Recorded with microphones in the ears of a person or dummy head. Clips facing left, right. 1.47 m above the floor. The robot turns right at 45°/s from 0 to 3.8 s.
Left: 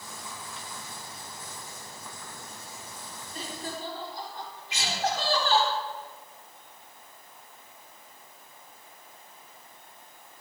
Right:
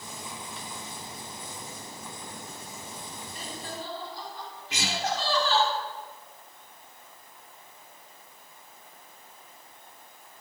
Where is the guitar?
50° right (ahead or behind), 3.5 m.